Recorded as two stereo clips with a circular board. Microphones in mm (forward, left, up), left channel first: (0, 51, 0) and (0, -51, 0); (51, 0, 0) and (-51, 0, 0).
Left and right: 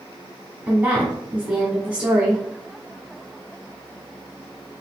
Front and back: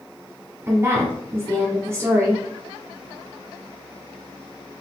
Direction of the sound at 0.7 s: 150° right.